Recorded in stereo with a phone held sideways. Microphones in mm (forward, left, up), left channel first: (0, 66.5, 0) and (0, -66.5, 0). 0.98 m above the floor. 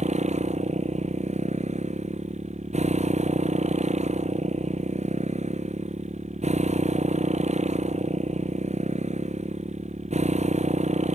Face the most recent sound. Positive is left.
turn(degrees=-55)  # may be behind; listen again after turning